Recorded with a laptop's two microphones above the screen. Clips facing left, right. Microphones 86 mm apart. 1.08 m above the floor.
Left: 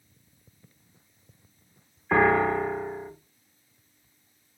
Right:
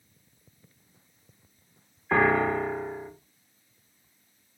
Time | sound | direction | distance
2.1 | a piano | 5° left (ahead or behind) | 0.5 m